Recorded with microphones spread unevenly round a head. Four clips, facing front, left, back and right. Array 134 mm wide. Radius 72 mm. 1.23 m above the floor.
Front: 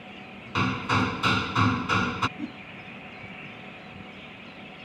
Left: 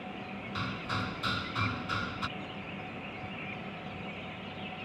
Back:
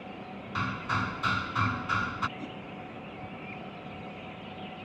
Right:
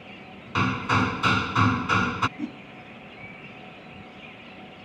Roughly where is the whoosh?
Right.